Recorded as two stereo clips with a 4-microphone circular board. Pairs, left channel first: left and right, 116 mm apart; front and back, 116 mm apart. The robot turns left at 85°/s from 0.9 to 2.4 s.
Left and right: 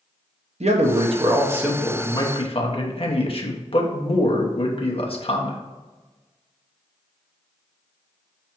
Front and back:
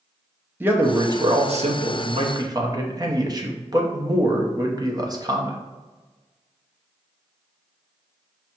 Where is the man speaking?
105° right, 0.8 m; by 5.6 s 125° left, 0.8 m.